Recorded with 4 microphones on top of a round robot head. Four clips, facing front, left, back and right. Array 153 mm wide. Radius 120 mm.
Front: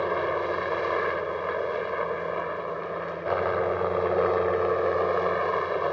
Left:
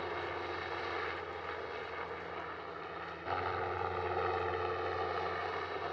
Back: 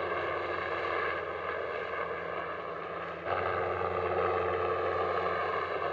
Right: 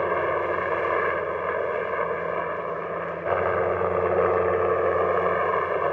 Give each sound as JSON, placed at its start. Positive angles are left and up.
{"t": 0.0, "sound": "a helicopter", "azimuth_deg": -65}